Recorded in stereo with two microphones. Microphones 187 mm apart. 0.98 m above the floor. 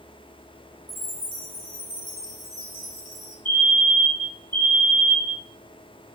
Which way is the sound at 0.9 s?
30° left (ahead or behind).